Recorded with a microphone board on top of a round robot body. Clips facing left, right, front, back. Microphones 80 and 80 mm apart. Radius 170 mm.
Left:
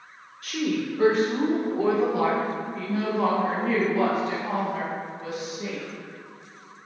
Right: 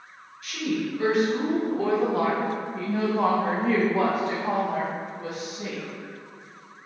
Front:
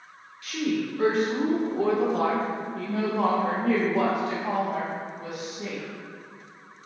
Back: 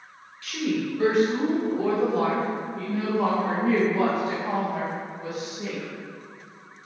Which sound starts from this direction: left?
A woman speaking, at 0.4 s.